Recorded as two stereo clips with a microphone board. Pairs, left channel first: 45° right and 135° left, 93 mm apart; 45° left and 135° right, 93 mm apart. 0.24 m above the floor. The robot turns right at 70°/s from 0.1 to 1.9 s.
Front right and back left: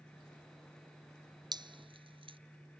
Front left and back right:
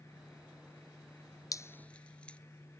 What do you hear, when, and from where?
1.5 s dripping: 95° left; by 2.4 s 125° left